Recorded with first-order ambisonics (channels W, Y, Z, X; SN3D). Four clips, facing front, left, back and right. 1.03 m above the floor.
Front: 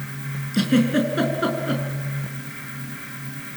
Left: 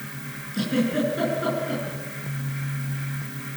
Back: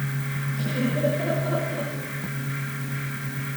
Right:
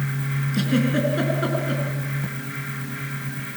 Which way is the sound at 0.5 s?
20° right.